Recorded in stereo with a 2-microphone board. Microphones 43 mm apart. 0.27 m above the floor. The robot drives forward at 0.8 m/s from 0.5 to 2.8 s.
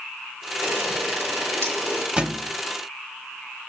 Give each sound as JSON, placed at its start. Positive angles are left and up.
{"t": 0.6, "sound": "a camera shutter", "side_deg": -75, "distance_m": 5.5}
{"t": 2.2, "sound": "a thud", "side_deg": -25, "distance_m": 0.7}